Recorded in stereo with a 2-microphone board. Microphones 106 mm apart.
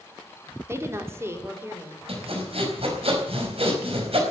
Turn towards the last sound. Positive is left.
turn(degrees=-65)  # may be behind; listen again after turning